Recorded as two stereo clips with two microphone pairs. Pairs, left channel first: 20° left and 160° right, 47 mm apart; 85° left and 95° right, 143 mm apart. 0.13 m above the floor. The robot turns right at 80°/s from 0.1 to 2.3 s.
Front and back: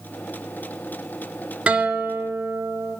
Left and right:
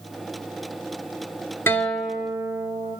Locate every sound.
1.7 s a guitar: 150° left, 0.6 m; by 3.0 s 160° right, 0.6 m